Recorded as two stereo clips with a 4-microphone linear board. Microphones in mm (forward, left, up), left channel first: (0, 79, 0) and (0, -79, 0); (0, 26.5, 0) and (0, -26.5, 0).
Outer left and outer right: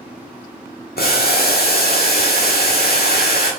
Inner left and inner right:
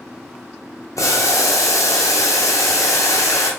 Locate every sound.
1.0 s boiling: 80° left, 1.0 m